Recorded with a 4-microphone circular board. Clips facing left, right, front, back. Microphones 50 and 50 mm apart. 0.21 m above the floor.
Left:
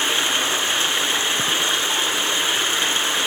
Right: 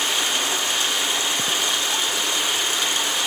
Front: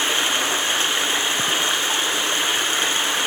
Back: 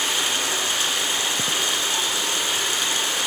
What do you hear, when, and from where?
0.0 s running water: 45° left, 1.8 m